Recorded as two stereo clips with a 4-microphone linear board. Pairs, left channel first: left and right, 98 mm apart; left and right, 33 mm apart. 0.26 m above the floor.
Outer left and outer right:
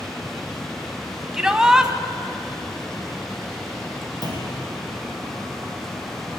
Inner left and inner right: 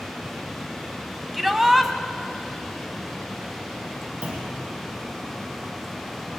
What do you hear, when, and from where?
1.3 s a shout: 5° right (ahead or behind), 1.7 m
4.2 s a clunk: 45° right (ahead or behind), 4.5 m